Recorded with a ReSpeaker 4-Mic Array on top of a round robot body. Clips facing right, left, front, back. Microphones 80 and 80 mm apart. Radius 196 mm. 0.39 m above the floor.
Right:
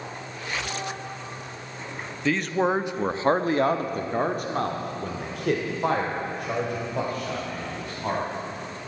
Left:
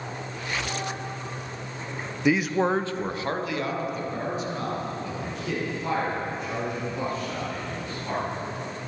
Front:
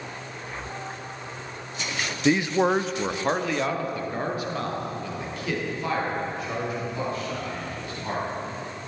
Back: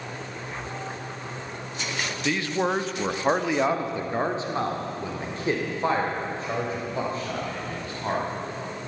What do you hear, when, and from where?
2.2 s a man speaking: 30° left, 0.8 m; by 8.2 s 125° right, 3.5 m